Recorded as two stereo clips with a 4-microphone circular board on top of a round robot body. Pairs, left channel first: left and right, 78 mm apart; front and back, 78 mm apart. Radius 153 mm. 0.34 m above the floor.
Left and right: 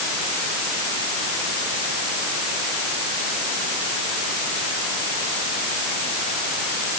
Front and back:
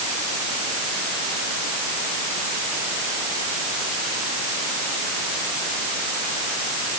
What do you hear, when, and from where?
Only background noise.